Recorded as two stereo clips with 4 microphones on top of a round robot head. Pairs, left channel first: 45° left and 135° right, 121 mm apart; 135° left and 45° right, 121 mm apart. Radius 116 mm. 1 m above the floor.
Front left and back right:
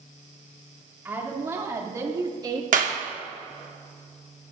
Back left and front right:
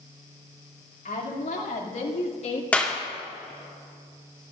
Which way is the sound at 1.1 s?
150° left.